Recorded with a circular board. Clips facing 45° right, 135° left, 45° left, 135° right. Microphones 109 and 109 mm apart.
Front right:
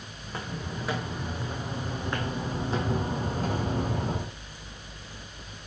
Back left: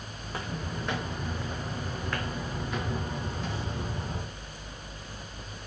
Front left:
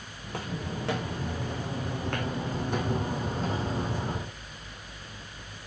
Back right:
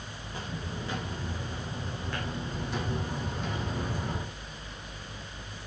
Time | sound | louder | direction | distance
0.2 | footsteps | even, front left 4 dB | 45° left | 3.5 m